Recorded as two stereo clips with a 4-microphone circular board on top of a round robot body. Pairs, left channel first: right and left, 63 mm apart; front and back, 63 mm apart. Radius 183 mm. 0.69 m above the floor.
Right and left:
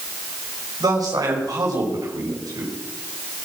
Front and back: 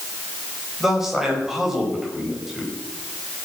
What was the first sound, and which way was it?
A man speaking, 95° left.